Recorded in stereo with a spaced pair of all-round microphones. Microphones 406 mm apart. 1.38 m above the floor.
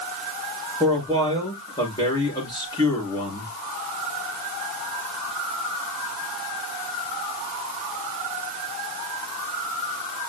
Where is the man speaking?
10° left (ahead or behind), 6 m.